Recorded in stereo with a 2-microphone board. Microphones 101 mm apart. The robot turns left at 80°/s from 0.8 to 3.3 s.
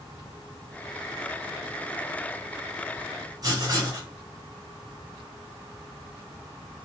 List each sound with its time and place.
3.4 s writing: 40° right (ahead or behind), 1.6 m